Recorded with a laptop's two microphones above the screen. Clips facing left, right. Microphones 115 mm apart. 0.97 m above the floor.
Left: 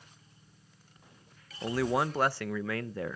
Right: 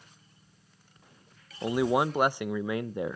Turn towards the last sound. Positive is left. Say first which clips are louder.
# right 3 dB
turn(degrees=-20)  # may be behind; listen again after turning